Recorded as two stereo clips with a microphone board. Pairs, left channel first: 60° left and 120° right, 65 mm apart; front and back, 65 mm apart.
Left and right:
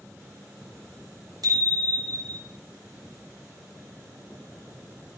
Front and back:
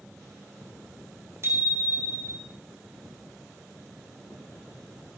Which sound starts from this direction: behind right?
A bicycle bell, at 1.4 s.